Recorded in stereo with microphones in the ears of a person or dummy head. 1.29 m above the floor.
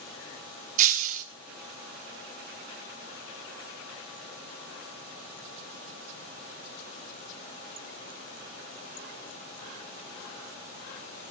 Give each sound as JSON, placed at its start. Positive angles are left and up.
{"t": 0.8, "sound": "breaking glass", "side_deg": -45, "distance_m": 1.9}